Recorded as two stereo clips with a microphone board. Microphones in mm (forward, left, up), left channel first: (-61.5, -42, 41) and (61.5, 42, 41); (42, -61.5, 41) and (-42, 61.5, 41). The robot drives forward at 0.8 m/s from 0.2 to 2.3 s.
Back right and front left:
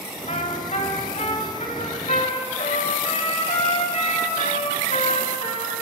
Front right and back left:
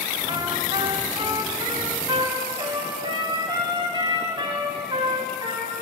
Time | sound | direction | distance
0.3 | a trumpet | straight behind | 3 m